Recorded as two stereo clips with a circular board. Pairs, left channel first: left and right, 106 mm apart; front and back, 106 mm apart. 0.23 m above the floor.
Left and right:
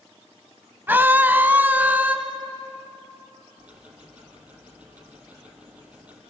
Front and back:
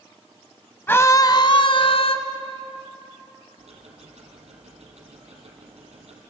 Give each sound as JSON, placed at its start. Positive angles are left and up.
{"t": 0.9, "sound": "a scream", "azimuth_deg": -45, "distance_m": 1.1}
{"t": 3.6, "sound": "ticking", "azimuth_deg": -165, "distance_m": 4.0}